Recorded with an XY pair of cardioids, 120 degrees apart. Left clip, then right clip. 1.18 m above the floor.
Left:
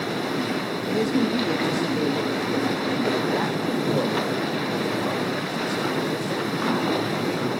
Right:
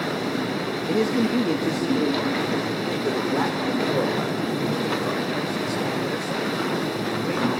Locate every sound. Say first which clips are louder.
0.9 s a man speaking: right 1 dB; 30° right, 2 m; by 7.5 s 15° right, 10 m